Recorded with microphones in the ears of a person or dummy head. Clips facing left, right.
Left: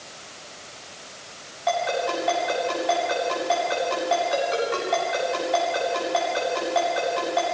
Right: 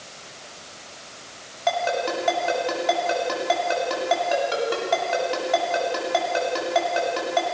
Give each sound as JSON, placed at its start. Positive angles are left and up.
{"t": 1.7, "sound": "a ringtone", "side_deg": -60, "distance_m": 8.0}